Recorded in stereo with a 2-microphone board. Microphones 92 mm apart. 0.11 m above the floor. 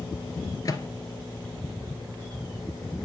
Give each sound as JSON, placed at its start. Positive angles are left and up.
{"t": 0.7, "sound": "a microwave", "side_deg": 40, "distance_m": 1.2}